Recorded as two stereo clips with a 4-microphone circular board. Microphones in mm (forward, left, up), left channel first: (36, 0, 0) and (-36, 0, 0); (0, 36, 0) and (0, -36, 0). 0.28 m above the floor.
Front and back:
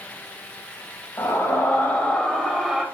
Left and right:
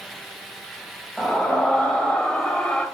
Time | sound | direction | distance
1.2 | a scream | 15° left | 2 m